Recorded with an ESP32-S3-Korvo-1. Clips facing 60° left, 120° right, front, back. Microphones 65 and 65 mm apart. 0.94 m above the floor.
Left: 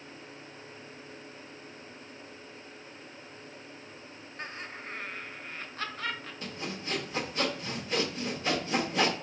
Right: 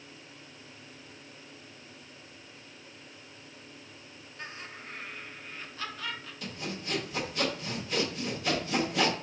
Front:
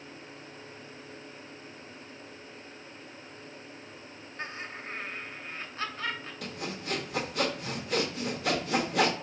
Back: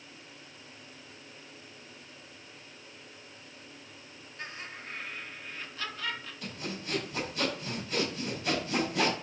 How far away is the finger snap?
No finger snap in this recording.